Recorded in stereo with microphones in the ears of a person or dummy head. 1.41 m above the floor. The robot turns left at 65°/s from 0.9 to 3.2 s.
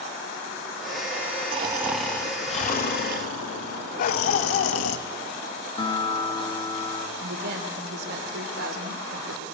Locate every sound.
1.5 s snoring: 150° right, 2.5 m; by 5.0 s 100° left, 2.5 m
4.0 s a dog barking: 55° left (ahead or behind), 3 m
5.8 s a guitar: 25° left (ahead or behind), 2.5 m
7.2 s a woman speaking: 60° right (ahead or behind), 5 m